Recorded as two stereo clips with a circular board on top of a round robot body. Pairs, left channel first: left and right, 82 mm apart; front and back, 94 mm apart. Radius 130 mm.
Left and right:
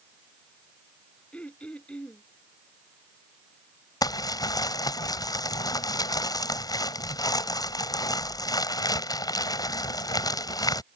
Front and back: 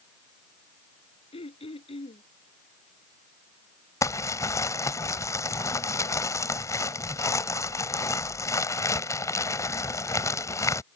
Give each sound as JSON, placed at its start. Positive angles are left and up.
{"t": 1.3, "sound": "throat clearing", "azimuth_deg": 15}
{"t": 4.0, "sound": "crumpling", "azimuth_deg": 55}